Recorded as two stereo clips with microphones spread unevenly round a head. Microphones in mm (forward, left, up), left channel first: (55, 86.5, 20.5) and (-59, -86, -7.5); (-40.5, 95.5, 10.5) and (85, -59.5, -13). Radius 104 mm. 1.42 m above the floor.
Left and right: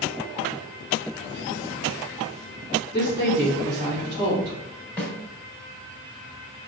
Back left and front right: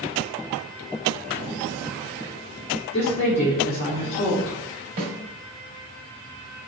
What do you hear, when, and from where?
2.9 s a woman speaking: 170° left, 2.5 m
5.0 s a snare drum: 20° right, 2 m